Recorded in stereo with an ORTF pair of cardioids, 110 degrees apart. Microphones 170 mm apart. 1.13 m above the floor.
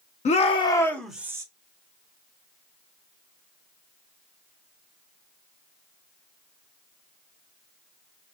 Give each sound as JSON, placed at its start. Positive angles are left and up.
{"t": 0.2, "sound": "a shout", "azimuth_deg": 45, "distance_m": 1.3}